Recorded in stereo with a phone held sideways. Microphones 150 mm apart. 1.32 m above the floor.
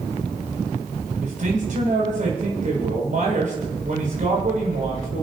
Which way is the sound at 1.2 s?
60° right (ahead or behind).